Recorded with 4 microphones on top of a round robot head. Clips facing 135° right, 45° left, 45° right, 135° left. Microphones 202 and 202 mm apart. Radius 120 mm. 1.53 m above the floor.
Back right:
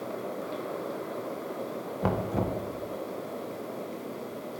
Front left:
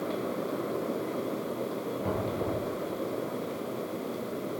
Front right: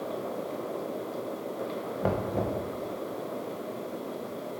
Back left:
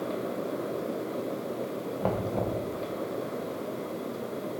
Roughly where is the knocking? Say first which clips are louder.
Back right 4 dB, front right 1 dB; behind right.